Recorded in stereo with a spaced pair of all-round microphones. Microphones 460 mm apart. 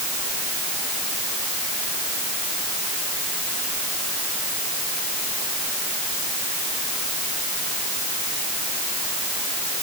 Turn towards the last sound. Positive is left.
No sound to turn to.